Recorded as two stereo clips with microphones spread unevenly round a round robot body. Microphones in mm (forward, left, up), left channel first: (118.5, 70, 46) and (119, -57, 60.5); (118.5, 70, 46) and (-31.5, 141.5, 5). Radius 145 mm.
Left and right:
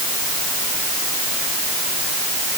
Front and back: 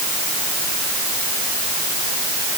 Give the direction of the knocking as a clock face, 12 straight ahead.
I don't hear knocking.